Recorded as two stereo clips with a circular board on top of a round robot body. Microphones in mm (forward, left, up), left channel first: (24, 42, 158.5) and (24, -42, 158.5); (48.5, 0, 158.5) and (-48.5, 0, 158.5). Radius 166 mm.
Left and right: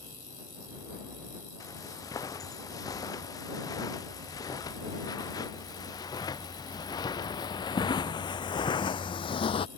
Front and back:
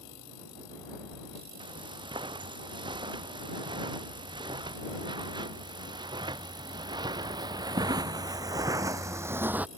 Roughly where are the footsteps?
Behind left.